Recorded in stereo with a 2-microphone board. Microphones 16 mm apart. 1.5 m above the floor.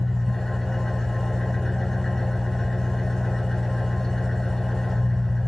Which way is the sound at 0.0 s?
40° left (ahead or behind).